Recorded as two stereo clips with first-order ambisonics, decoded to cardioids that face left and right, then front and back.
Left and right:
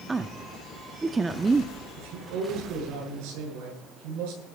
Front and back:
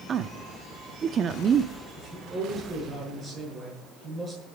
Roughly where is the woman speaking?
Behind right.